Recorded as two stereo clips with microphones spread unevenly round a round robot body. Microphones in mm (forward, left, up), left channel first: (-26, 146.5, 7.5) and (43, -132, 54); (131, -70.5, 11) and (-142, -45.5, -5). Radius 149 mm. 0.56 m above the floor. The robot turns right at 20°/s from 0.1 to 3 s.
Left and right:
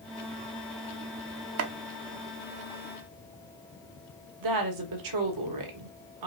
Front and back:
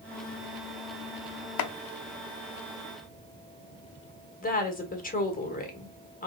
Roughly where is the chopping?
Ahead right.